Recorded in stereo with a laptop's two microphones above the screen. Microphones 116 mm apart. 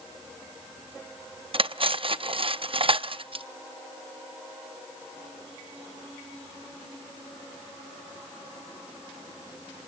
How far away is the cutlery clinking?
About 0.6 m.